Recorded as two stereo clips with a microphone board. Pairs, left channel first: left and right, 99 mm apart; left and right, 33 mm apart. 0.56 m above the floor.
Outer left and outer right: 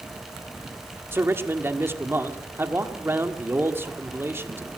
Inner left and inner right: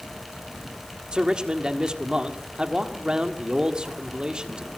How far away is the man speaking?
About 1.7 m.